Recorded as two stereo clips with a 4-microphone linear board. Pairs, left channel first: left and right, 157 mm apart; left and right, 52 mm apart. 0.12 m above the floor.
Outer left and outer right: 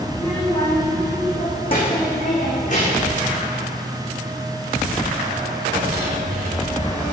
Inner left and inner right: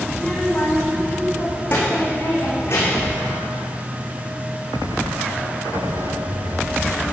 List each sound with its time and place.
0.1 s a child speaking: 15° left (ahead or behind), 4.5 m; by 3.2 s 55° left (ahead or behind), 6 m